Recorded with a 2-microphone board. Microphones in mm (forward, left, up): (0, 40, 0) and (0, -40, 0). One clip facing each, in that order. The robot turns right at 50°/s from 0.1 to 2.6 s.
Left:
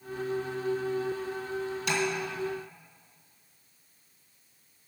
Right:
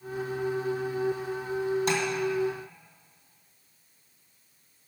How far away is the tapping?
About 1.9 m.